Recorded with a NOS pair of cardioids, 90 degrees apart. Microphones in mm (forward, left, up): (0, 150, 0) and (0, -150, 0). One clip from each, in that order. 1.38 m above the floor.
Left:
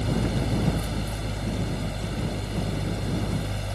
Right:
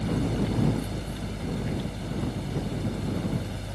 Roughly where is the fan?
Ahead left.